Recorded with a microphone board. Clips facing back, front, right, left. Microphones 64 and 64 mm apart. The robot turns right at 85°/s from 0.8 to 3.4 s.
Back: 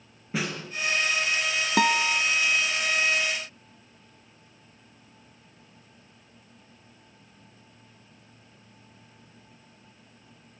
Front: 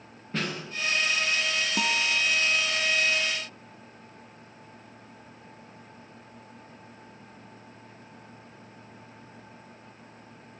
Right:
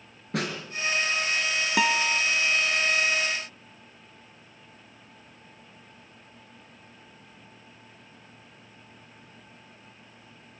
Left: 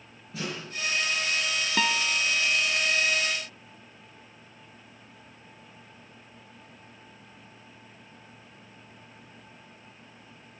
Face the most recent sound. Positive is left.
turn(degrees=-30)